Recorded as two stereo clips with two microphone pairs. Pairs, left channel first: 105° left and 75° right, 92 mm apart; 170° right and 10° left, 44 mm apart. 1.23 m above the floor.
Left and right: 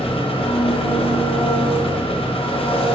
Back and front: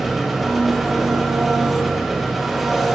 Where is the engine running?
90° left, 0.7 m.